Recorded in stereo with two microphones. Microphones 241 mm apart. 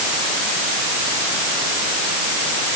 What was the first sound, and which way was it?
Only background noise.